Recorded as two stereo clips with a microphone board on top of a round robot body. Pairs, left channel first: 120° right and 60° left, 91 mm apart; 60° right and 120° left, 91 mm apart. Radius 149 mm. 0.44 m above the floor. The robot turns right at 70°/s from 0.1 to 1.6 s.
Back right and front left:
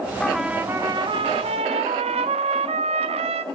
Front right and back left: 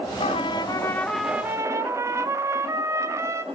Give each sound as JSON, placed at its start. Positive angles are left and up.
{"t": 0.2, "sound": "a trumpet", "azimuth_deg": -40, "distance_m": 0.9}